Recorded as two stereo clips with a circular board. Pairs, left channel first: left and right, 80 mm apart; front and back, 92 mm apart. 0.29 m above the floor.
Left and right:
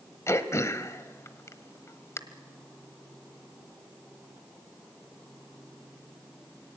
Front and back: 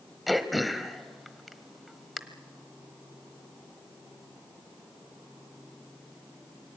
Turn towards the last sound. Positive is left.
turn(degrees=90)